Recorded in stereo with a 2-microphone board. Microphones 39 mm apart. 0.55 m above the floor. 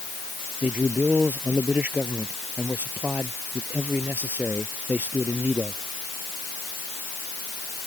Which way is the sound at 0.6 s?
45° right (ahead or behind).